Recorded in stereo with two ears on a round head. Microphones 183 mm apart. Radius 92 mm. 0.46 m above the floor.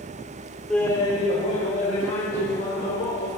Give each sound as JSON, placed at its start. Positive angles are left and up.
{"t": 0.7, "sound": "laughter", "side_deg": 0, "distance_m": 0.7}